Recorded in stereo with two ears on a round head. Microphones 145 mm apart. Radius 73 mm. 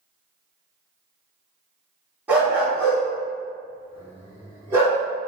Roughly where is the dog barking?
Centre.